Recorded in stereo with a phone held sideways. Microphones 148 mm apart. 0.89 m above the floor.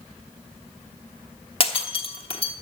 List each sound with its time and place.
1.6 s breaking glass: 40° left (ahead or behind), 1.1 m